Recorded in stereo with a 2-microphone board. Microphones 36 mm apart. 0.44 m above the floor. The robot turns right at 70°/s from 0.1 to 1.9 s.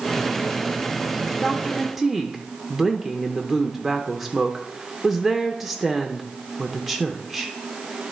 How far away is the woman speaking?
About 0.8 m.